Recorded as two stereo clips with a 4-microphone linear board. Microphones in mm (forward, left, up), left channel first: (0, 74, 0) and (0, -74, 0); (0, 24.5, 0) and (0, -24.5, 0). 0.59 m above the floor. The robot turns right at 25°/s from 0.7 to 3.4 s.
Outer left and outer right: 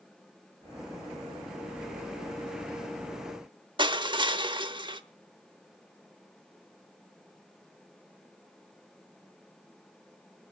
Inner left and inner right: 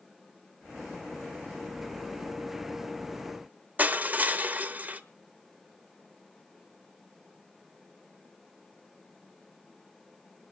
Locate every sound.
3.8 s crushing: 35° right (ahead or behind), 0.9 m